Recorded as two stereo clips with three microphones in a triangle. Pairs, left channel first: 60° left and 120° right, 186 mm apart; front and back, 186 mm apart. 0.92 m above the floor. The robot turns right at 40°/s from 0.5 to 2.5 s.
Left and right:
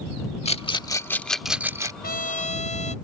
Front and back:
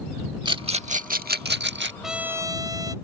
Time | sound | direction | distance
0.5 | a rattle | 115° left | ?
2.0 | a trumpet | 90° left | ?